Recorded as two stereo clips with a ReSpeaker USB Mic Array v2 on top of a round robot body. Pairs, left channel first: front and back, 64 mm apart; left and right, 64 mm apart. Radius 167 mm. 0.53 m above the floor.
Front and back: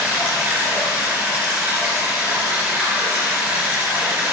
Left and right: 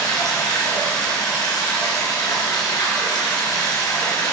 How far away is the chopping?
No chopping in this recording.